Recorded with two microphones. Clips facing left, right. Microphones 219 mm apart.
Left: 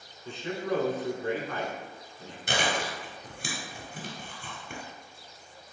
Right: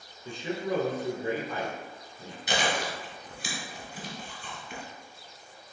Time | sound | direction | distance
0.2 | a man speaking | 10° right (ahead or behind) | 1.1 m
2.5 | chewing | 50° left (ahead or behind) | 1.4 m